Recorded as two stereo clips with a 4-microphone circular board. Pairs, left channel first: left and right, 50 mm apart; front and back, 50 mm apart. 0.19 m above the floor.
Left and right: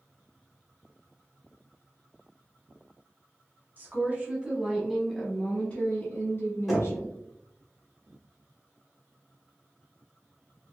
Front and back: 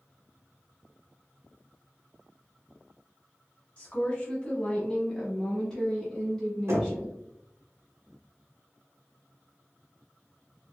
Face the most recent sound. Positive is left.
turn(degrees=175)